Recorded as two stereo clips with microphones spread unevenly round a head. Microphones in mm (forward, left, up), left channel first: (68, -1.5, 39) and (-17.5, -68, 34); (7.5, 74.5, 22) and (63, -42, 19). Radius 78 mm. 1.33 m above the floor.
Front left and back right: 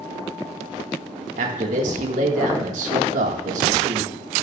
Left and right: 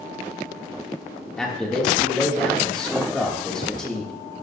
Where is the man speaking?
160° right, 1.7 m.